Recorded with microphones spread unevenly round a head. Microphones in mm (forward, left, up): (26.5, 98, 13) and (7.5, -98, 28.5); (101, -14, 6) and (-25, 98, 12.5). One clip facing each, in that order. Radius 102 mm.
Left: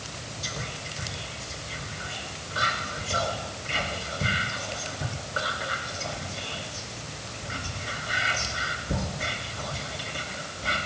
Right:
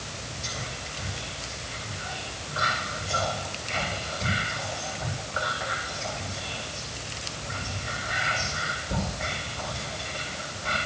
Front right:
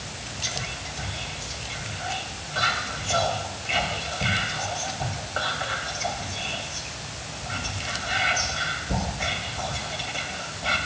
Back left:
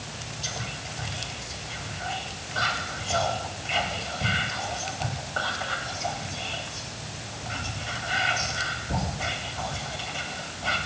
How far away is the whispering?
About 3.5 m.